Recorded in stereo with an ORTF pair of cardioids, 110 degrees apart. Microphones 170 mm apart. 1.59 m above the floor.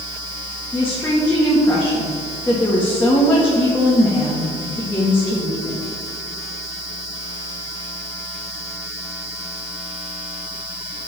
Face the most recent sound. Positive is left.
turn(degrees=10)